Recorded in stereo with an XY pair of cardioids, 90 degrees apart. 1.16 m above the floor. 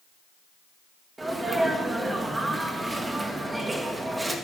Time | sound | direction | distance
1.2 | a sneeze | 20° right | 2.0 m